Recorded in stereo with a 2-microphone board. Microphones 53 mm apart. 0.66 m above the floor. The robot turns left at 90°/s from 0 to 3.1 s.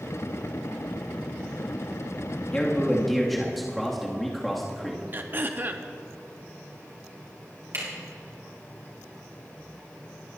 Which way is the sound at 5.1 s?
35° right (ahead or behind).